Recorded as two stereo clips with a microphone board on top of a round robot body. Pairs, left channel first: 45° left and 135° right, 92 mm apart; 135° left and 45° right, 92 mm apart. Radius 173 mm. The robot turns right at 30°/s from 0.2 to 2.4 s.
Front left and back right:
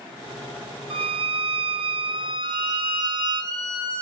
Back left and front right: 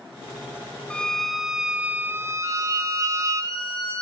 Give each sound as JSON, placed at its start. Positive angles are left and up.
{"t": 0.9, "sound": "a violin", "azimuth_deg": -145, "distance_m": 0.8}
{"t": 2.4, "sound": "a violin", "azimuth_deg": -90, "distance_m": 8.5}